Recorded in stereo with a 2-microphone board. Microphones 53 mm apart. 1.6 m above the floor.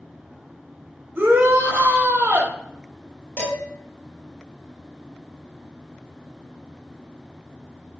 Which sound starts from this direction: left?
Dishes clattering, at 3.4 s.